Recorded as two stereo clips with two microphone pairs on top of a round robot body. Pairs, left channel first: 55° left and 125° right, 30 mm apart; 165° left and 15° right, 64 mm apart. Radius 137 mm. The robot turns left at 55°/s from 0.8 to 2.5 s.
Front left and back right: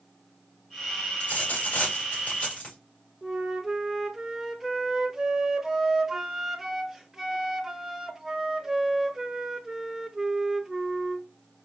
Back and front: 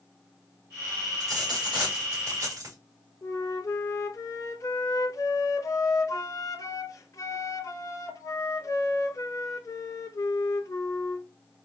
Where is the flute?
155° left, 0.9 m.